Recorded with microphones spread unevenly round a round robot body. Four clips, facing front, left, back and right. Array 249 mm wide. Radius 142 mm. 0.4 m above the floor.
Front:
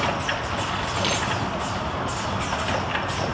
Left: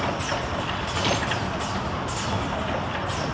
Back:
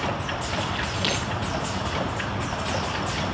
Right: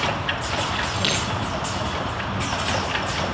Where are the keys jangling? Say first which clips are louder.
Right 1 dB, front 2 dB; 150° right, 4 m.